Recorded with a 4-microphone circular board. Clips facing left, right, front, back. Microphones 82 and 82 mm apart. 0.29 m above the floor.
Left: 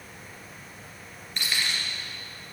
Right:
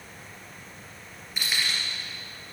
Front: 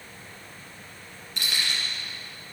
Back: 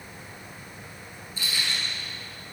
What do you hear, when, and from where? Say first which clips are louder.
1.4 s keys jangling: even, front 1 dB; 5° right, 2.5 m